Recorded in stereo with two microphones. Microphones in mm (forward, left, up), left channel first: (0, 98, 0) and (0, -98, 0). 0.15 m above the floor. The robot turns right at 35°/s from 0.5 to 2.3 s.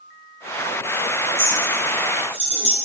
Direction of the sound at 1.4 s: 50° right (ahead or behind).